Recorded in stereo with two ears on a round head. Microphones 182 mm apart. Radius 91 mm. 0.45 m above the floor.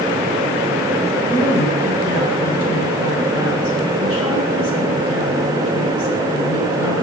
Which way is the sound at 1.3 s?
75° left (ahead or behind).